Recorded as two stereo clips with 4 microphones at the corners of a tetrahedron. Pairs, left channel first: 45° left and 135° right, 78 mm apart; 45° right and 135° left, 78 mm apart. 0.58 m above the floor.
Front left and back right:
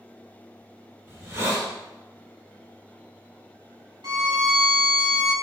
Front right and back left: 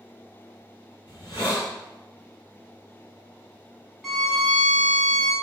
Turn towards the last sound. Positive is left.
turn(degrees=-135)